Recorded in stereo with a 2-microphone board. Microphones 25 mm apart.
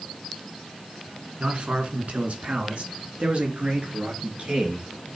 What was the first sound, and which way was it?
A man speaking, 55° right (ahead or behind).